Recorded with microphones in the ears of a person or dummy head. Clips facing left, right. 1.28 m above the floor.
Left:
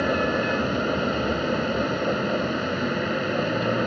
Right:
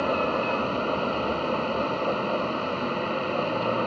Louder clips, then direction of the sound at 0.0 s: Left 2 dB; 15° left (ahead or behind).